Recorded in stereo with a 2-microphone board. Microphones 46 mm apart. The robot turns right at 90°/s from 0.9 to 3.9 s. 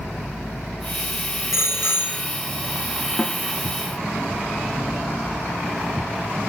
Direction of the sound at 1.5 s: 95° left.